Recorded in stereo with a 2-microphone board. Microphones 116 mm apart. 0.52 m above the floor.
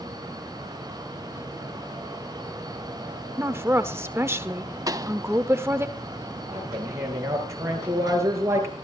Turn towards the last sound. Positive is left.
turn(degrees=-25)  # may be behind; listen again after turning